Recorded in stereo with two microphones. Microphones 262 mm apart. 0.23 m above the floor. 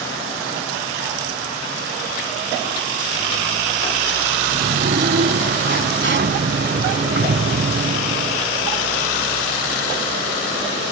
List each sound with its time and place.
4.5 s a sliding door: 45° right (ahead or behind)